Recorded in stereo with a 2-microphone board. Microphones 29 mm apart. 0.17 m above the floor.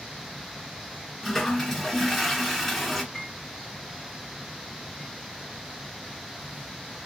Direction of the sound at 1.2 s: 5° left (ahead or behind).